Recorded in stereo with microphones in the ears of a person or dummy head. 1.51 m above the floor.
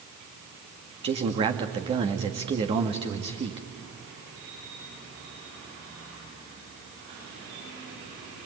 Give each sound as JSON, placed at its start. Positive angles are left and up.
{"t": 1.0, "sound": "a man speaking", "side_deg": -30, "distance_m": 2.0}